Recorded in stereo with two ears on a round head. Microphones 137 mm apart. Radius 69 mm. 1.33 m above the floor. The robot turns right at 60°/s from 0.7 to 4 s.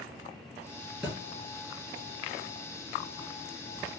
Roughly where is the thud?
Centre.